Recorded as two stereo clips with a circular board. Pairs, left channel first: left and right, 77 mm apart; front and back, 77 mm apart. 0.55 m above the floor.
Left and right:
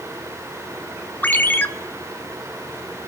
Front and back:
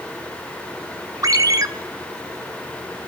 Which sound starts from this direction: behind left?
A ringtone, at 1.2 s.